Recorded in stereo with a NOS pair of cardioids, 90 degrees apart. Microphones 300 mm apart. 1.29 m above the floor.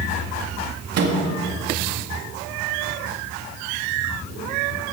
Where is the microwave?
60° right, 2 m.